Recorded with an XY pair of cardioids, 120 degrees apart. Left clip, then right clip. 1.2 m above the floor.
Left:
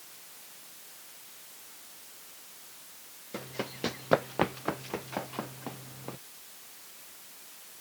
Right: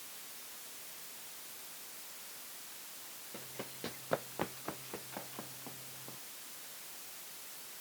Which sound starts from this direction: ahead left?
Running footsteps, at 3.3 s.